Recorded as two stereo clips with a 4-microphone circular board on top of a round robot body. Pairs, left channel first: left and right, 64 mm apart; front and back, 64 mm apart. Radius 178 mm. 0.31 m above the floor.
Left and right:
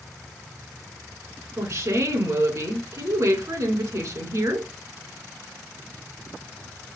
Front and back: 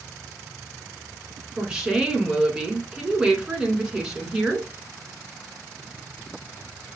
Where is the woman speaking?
100° right, 2 m.